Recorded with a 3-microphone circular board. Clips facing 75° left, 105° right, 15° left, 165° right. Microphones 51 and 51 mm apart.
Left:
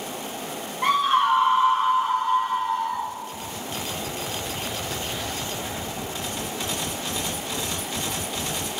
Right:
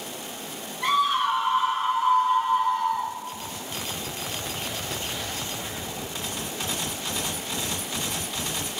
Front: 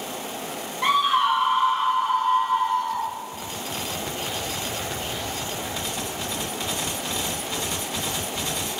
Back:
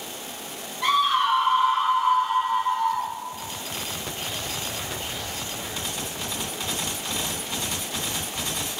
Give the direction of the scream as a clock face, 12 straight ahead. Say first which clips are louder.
Left 3 dB, front 1 dB; 9 o'clock.